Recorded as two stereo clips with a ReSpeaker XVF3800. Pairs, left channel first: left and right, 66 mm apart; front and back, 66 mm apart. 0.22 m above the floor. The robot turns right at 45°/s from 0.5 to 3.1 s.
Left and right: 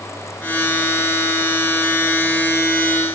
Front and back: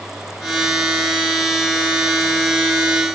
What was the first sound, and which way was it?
Only background noise.